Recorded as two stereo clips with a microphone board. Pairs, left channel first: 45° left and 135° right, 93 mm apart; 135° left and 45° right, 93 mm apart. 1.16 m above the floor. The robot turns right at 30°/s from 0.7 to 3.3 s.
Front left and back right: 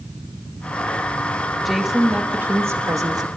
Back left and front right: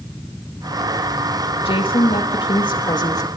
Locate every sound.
1.6 s a woman speaking: 135° left, 2 m; by 3.3 s straight behind, 2 m